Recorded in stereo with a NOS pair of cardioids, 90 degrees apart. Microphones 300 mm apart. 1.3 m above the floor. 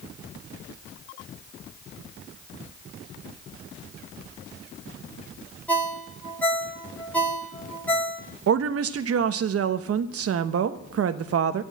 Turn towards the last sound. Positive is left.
turn(degrees=-50)